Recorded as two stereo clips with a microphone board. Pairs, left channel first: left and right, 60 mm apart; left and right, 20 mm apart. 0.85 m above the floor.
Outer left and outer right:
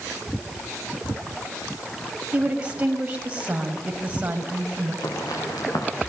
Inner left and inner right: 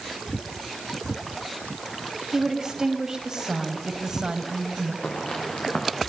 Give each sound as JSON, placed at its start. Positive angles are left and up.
{"t": 2.3, "sound": "a woman speaking", "side_deg": -25, "distance_m": 5.5}
{"t": 5.0, "sound": "footsteps", "side_deg": 80, "distance_m": 8.5}